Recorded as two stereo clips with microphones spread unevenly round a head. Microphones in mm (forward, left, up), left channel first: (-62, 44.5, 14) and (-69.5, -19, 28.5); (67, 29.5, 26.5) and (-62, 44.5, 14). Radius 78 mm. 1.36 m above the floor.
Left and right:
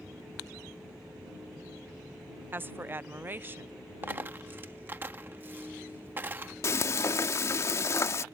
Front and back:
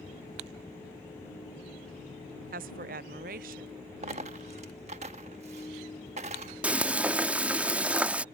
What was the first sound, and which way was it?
A woman speaking, 155° right.